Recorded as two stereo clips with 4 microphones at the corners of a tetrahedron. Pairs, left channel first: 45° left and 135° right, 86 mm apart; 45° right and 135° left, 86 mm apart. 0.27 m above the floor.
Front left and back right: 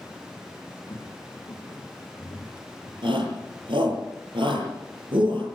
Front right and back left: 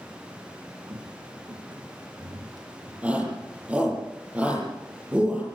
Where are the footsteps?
95° left, 5 m; by 2.9 s 90° left, 6.5 m.